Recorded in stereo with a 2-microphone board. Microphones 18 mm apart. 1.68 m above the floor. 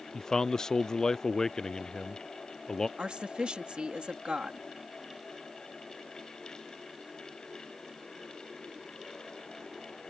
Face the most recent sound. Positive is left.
turn(degrees=-65)  # may be behind; listen again after turning